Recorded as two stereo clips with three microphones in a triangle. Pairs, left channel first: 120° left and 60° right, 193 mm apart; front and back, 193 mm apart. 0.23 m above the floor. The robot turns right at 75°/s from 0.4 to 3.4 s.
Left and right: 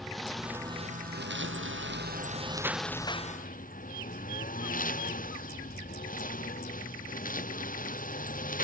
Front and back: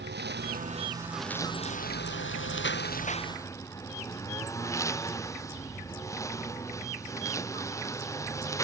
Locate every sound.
0.0 s a lawn mower: 150° right; by 8.6 s 75° left